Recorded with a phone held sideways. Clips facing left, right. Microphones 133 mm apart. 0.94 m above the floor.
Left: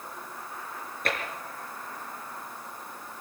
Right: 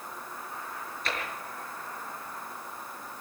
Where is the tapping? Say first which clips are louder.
Left 4 dB; 55° left (ahead or behind), 5 m.